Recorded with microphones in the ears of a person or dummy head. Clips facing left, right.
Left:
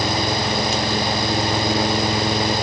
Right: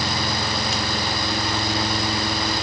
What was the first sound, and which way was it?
Only background noise.